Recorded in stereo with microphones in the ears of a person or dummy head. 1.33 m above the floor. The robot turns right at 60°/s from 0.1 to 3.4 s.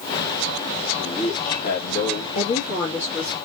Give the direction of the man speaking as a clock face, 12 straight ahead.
12 o'clock.